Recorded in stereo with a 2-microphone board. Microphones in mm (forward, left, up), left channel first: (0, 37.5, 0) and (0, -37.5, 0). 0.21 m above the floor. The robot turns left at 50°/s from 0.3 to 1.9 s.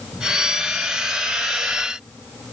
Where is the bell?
I don't hear a bell.